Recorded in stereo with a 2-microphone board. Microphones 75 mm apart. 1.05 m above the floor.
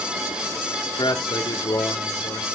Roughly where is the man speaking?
Left.